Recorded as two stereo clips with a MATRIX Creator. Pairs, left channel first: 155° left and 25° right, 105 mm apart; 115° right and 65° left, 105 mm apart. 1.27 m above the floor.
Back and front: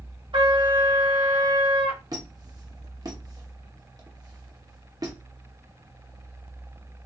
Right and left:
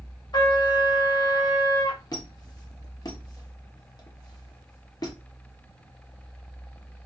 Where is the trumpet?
65° right, 1.2 m.